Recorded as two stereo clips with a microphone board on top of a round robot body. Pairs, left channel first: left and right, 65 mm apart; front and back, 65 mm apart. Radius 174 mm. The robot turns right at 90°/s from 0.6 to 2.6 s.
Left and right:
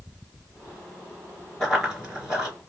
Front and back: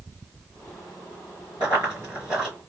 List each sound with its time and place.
1.6 s running footsteps: 160° left, 1.2 m; by 2.5 s 120° right, 1.2 m